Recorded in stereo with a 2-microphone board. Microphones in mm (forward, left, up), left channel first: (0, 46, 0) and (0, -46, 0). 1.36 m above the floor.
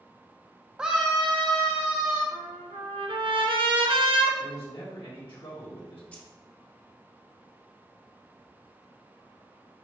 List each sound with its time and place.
0.8 s a scream: 10° right (ahead or behind), 0.5 m; by 2.2 s 10° left (ahead or behind), 1.9 m
2.3 s a trumpet: 80° right, 1.3 m
4.4 s a man speaking: 70° left (ahead or behind), 2.5 m
6.1 s keys jangling: 15° left (ahead or behind), 1.1 m